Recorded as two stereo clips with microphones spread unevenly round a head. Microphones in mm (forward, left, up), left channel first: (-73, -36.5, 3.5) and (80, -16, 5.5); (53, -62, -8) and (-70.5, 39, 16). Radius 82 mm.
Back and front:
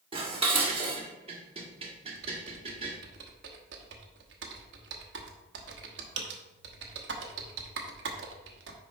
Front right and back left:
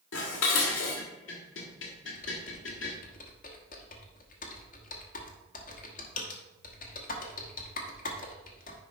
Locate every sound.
0.1 s dishes clattering: 45° right, 1.6 m
2.1 s typing on a keyboard: 5° left, 1.1 m